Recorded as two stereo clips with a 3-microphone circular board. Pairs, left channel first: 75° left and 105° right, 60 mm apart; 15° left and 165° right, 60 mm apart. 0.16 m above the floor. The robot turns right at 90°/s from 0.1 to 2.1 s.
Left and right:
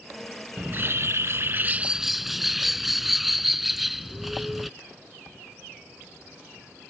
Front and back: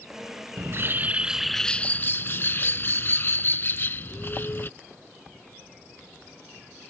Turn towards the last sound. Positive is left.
turn(degrees=-20)